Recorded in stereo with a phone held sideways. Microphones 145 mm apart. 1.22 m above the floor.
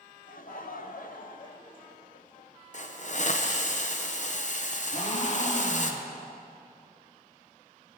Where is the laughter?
65° left (ahead or behind), 1.0 m.